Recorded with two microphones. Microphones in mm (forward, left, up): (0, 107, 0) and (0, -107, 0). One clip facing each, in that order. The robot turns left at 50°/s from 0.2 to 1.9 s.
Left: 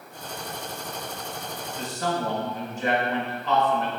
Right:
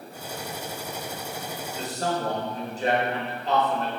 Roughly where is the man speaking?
Right.